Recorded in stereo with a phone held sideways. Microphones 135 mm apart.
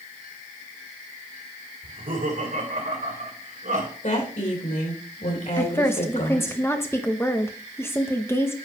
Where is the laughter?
80° right, 2.5 m.